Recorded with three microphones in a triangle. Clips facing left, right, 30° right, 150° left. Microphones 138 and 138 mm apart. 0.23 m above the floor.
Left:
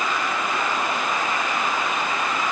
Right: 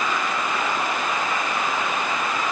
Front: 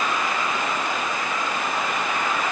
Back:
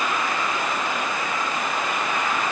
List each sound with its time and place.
Only background noise.